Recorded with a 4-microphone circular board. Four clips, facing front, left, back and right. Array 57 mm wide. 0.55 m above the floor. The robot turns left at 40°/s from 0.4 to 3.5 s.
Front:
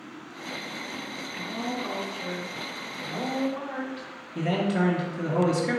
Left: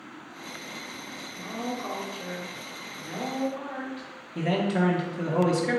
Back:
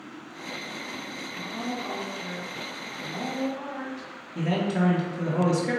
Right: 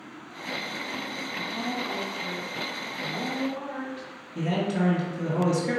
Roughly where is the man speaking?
Ahead left.